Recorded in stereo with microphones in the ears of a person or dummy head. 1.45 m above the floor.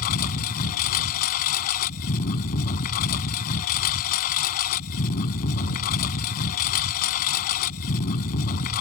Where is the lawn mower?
45° left (ahead or behind).